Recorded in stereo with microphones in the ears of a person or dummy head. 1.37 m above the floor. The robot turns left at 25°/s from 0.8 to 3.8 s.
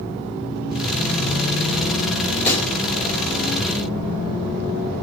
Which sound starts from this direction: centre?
A pop, at 2.5 s.